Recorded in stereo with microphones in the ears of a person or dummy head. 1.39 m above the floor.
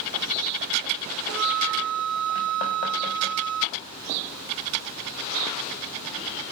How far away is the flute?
About 0.6 m.